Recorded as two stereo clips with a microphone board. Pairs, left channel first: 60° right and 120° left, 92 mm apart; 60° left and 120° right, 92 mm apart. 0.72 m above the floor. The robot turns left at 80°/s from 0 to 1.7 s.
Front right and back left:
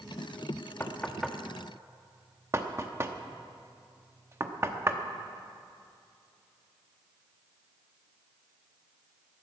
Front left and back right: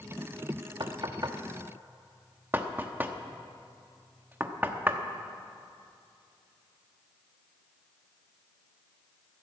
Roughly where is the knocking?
Behind right.